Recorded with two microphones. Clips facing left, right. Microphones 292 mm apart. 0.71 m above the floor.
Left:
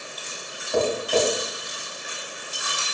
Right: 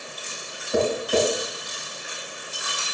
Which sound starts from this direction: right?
Tapping, at 0.7 s.